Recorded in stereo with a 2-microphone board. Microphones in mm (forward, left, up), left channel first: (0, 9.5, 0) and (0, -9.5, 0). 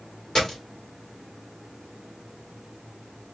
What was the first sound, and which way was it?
A dropped coin, 40° left (ahead or behind).